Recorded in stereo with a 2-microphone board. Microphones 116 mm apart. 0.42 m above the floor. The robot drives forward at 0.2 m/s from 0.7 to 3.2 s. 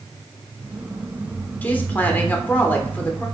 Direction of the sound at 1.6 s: 15° left (ahead or behind).